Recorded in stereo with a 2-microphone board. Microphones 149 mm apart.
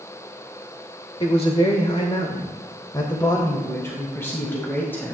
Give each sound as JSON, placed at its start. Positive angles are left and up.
{"t": 1.2, "sound": "a man speaking", "side_deg": 40, "distance_m": 1.1}